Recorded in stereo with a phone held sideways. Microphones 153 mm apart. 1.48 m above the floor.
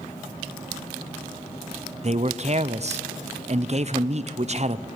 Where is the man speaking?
45° right (ahead or behind), 0.7 m.